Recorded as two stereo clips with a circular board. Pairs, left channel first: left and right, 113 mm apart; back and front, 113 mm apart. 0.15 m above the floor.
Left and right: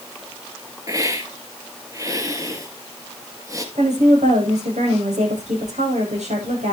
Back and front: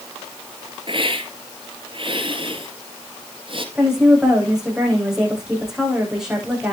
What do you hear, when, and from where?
0.9 s a hiss: 35° right, 2.5 m
3.8 s a woman speaking: 85° right, 9 m